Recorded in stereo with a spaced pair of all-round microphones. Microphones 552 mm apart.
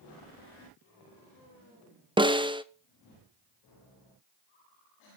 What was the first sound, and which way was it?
A snare drum, 10° right (ahead or behind).